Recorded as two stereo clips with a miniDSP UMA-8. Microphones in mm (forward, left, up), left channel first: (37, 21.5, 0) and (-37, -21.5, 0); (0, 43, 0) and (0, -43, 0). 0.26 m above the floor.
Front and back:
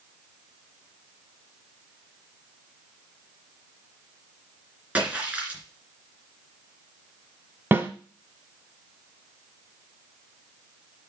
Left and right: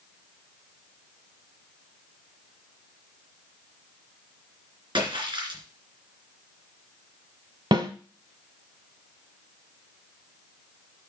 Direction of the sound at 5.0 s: 80° right.